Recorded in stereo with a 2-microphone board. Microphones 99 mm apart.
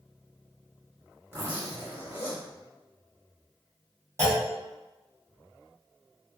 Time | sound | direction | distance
1.3 | a zipper | 20° right (ahead or behind) | 1.4 m
4.2 | a clunk | 30° right (ahead or behind) | 1.8 m